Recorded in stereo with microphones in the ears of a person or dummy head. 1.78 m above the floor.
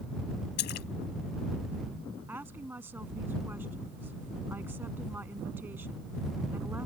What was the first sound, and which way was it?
A splash, 50° left (ahead or behind).